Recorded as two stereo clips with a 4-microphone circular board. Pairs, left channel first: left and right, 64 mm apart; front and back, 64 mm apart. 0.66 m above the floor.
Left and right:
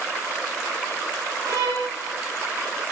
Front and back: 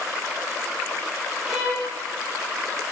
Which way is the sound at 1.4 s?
90° right.